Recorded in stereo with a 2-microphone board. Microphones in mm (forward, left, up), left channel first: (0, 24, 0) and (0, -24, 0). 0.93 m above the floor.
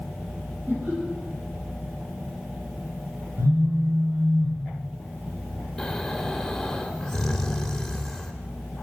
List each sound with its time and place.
0.7 s laughter: 55° right (ahead or behind), 2.5 m
3.4 s a phone buzzing: 85° right, 2 m
5.8 s snoring: 10° left (ahead or behind), 0.7 m